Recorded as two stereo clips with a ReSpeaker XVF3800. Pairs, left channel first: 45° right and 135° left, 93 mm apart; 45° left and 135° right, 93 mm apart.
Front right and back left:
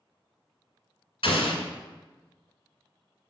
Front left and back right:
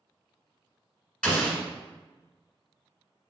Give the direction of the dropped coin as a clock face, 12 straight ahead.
No dropped coin in this recording.